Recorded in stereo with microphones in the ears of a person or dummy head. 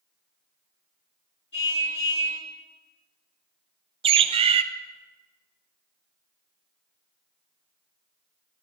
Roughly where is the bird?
Right.